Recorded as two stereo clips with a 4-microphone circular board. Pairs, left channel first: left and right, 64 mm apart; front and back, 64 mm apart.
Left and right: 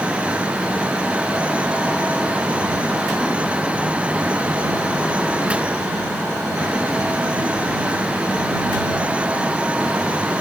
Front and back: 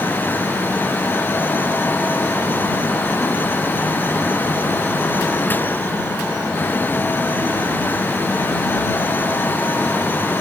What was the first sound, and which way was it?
Only background noise.